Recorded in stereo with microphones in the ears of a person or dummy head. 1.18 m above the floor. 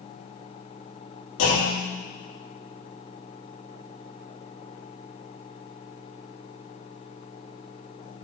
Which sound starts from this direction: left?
A clunk, at 1.4 s.